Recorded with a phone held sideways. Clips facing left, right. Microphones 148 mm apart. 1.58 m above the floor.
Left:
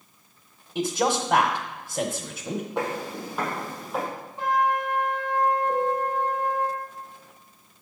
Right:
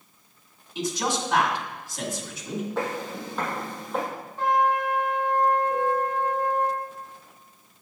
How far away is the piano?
About 2 m.